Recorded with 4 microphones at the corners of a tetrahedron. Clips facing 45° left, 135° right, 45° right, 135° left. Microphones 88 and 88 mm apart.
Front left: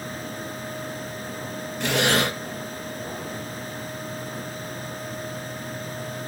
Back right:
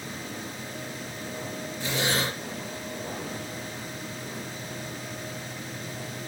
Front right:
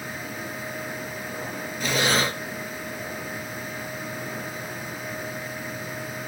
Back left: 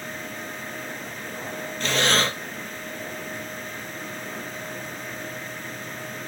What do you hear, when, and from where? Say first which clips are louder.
1.8 s breathing: front left 6 dB, even; 35° left, 2 m